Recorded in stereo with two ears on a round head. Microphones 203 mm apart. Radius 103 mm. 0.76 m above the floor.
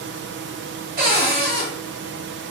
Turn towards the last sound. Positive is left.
turn(degrees=-40)  # may be behind; listen again after turning